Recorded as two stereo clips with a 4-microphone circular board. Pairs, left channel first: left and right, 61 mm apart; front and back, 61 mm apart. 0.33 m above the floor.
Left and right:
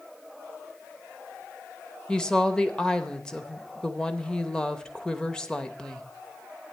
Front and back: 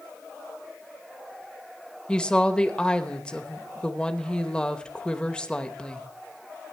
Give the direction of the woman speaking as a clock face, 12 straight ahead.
10 o'clock.